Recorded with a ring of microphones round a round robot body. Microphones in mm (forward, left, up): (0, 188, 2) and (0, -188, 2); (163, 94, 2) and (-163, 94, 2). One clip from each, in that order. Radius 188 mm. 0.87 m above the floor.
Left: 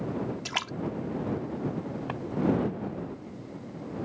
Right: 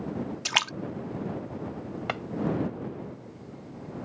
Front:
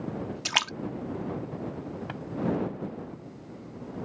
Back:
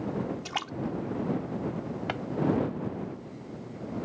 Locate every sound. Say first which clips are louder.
0.5 s a splash: right 8 dB, front 13 dB; 35° right
2.1 s a drawer: right 8 dB, back 6 dB; 110° right